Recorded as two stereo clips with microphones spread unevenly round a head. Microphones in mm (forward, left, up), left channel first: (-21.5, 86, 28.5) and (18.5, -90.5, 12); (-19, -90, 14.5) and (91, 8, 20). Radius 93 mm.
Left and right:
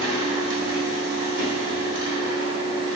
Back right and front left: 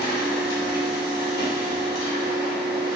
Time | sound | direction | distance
0.0 | a machine running | 120° right | 0.9 m